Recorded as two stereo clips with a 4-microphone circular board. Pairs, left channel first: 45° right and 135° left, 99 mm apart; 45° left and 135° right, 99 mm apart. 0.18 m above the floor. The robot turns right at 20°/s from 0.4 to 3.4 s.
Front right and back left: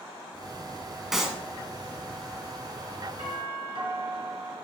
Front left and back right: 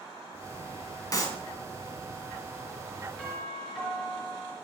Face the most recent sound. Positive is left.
turn(degrees=125)